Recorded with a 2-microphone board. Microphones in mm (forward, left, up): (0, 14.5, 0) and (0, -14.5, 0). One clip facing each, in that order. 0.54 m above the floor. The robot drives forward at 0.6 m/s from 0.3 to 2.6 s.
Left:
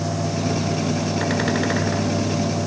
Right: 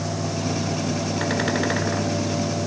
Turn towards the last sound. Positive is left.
No sound to turn to.